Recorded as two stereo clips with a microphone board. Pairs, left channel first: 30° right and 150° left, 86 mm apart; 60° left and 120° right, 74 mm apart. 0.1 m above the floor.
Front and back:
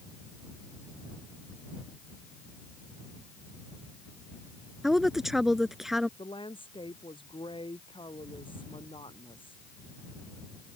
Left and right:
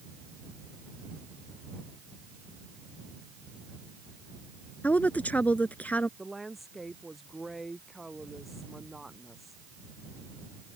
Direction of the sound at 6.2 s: 30° right.